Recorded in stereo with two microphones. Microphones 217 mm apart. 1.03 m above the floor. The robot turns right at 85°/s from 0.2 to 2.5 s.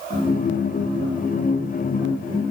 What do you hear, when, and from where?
Only background noise.